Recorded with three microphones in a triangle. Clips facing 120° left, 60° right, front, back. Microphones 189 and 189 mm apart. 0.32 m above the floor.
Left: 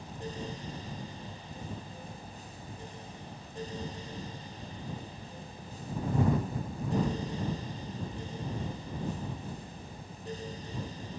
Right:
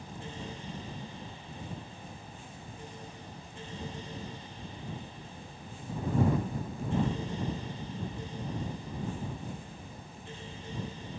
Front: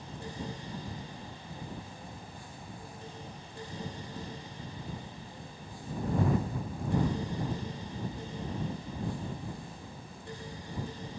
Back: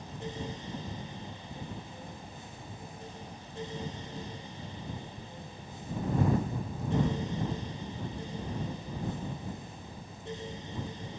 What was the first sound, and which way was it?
Only background noise.